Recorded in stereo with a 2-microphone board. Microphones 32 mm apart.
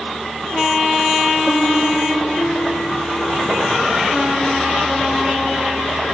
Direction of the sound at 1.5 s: 80° left.